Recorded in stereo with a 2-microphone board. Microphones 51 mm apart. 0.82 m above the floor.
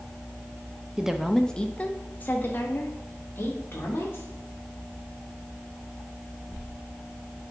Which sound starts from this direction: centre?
A woman speaking, at 1.0 s.